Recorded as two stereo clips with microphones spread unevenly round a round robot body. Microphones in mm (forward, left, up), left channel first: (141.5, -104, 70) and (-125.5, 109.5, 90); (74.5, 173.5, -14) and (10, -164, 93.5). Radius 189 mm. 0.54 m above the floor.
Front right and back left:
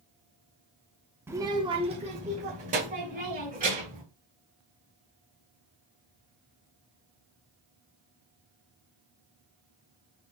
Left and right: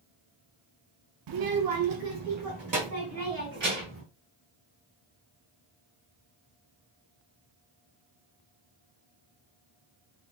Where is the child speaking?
135° right, 0.7 m; by 4.0 s 150° right, 3 m.